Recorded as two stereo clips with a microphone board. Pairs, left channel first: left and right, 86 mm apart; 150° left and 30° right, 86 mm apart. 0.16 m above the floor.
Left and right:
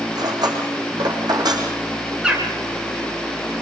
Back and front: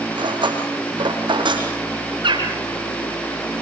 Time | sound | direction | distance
0.1 | cutlery clinking | 55° right | 5 m
2.2 | a bird | 10° right | 3.5 m